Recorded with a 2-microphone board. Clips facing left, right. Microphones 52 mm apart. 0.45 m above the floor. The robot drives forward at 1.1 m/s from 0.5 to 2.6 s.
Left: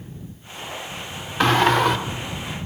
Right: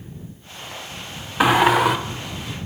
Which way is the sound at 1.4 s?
10° right (ahead or behind).